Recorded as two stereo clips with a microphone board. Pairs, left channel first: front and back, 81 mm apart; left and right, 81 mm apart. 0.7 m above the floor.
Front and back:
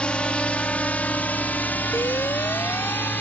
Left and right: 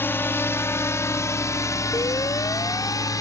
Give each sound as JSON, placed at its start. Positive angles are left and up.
{"t": 0.0, "sound": "a drone", "azimuth_deg": 65}
{"t": 1.9, "sound": "an alarm", "azimuth_deg": 50}